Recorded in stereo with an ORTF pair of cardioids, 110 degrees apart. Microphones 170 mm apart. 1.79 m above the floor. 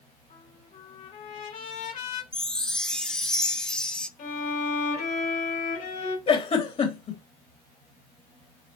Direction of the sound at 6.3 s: 35° left.